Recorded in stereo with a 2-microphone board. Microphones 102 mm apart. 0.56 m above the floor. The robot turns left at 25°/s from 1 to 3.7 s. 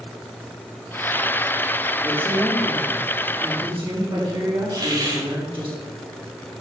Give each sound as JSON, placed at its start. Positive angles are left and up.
{"t": 2.0, "sound": "a woman speaking", "azimuth_deg": -20, "distance_m": 5.0}
{"t": 4.7, "sound": "a hiss", "side_deg": -40, "distance_m": 3.0}